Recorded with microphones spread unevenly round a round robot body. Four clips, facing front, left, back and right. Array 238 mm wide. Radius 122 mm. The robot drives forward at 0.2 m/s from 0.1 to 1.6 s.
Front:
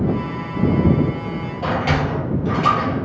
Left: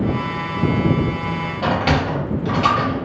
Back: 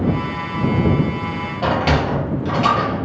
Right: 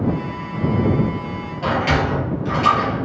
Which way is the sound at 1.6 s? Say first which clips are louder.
Even, back 3 dB; 155° left.